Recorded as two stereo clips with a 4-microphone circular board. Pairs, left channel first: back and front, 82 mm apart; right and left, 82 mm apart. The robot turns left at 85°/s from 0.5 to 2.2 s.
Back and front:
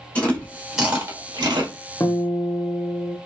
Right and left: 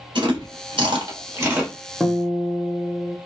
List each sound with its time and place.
0.1 s chewing: 105° left, 0.9 m; by 1.7 s straight ahead, 0.9 m
2.0 s a guitar: 175° left, 0.7 m; by 3.2 s 160° left, 0.7 m